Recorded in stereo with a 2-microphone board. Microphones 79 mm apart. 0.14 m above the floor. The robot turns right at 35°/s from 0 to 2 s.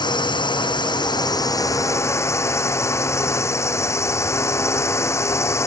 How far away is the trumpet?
No trumpet in this recording.